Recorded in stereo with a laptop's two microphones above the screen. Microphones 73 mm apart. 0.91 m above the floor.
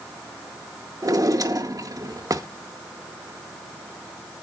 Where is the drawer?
50° right (ahead or behind), 0.6 m.